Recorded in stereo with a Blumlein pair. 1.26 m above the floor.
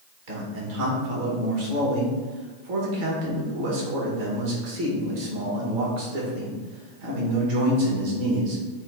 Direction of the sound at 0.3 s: 50° right.